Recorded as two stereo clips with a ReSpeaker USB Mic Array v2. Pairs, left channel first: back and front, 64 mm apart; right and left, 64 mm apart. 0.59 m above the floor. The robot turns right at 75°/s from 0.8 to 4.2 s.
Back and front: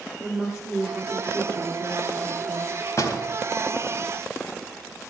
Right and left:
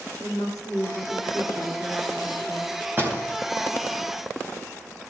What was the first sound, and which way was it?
A woman speaking, 85° right.